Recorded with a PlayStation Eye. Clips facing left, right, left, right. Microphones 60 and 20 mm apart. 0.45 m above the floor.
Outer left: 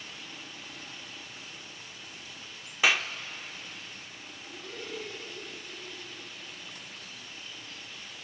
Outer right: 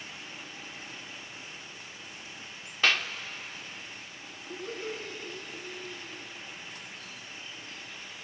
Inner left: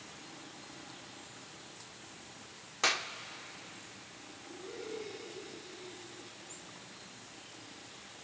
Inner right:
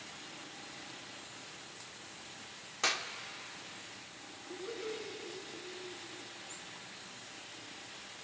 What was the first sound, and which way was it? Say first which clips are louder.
A clap: outer left 1 dB, inner left 2 dB; 10° left (ahead or behind).